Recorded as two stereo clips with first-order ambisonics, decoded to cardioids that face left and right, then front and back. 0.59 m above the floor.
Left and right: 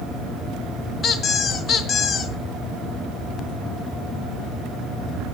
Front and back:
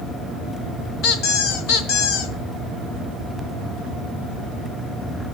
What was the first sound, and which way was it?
A squeak, 30° left.